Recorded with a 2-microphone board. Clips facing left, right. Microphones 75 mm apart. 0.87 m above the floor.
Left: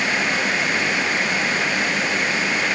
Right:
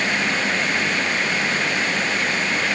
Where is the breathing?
No breathing in this recording.